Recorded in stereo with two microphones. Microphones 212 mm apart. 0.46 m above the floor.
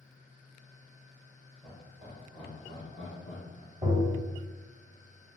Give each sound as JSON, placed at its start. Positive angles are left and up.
{"t": 1.6, "sound": "laughter", "side_deg": -15, "distance_m": 1.3}
{"t": 3.8, "sound": "tapping", "side_deg": -20, "distance_m": 0.9}